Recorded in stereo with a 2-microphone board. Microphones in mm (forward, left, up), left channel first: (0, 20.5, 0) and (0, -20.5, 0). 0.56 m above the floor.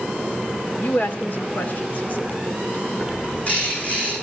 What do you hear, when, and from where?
0.8 s a woman speaking: 45° left (ahead or behind), 2 m
3.0 s a bird: 35° left (ahead or behind), 7.5 m